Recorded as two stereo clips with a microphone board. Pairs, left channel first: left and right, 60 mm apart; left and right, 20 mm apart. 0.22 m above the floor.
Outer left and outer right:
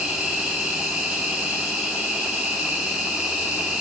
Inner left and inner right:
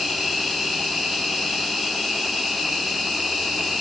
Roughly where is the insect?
Centre.